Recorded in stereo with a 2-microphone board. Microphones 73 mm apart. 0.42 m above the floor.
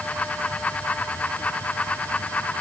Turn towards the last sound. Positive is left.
No sound to turn to.